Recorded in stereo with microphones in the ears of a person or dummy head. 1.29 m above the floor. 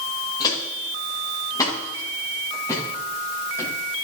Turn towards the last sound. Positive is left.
turn(degrees=20)  # may be behind; listen again after turning